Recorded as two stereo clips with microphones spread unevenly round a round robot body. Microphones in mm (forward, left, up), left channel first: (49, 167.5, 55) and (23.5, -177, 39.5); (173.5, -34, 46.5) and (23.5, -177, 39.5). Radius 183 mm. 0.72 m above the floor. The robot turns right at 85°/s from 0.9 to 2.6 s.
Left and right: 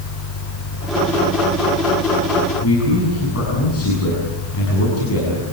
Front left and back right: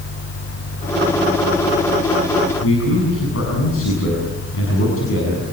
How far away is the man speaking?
About 7 m.